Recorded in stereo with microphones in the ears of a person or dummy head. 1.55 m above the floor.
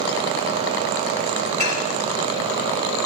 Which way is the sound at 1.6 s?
30° right (ahead or behind).